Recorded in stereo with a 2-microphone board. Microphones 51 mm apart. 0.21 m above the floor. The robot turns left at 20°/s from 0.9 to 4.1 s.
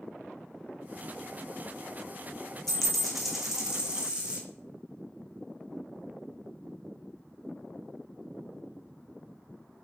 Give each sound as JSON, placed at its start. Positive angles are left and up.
{"t": 2.7, "sound": "a dropped coin", "side_deg": 10, "distance_m": 1.2}